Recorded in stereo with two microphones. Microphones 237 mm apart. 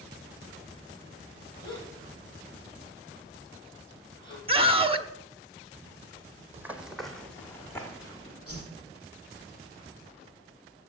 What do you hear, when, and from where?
1.6 s a gasp: 20° left (ahead or behind), 4 m
4.5 s a scream: 25° right (ahead or behind), 0.9 m
6.5 s running footsteps: 10° right (ahead or behind), 1.4 m; by 8.4 s 15° left (ahead or behind), 3 m
8.5 s a whoosh: 85° left, 5.5 m